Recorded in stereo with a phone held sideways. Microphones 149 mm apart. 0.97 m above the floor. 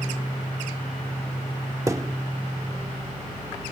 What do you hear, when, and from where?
1.9 s a thud: 20° right (ahead or behind)